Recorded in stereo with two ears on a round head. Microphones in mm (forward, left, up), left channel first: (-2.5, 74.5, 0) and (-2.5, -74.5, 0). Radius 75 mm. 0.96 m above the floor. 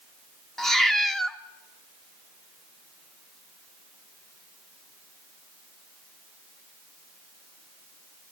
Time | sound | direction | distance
0.6 | a cat meowing | centre (ahead or behind) | 1.0 m